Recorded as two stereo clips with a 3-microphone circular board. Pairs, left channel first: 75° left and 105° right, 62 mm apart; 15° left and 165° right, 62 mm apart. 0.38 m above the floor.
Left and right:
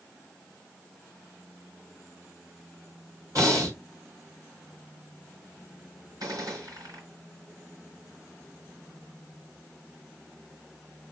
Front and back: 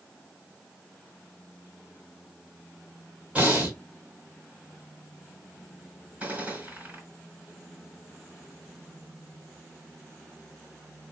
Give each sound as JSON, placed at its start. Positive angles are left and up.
{"t": 3.4, "sound": "breathing", "azimuth_deg": -95, "distance_m": 3.0}
{"t": 6.2, "sound": "a gunshot", "azimuth_deg": -100, "distance_m": 3.0}